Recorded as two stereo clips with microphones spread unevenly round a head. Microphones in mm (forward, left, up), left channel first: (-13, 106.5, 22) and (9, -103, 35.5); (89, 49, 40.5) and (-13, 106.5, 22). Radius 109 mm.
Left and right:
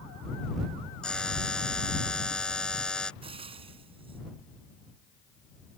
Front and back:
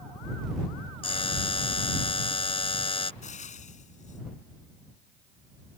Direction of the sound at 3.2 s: 20° right.